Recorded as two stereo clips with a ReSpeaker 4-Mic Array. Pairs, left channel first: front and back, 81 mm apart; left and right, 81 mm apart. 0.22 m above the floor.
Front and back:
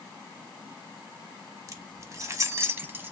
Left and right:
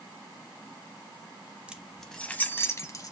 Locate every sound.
1.7 s keys jangling: 160° right, 0.9 m; by 3.1 s 120° left, 1.0 m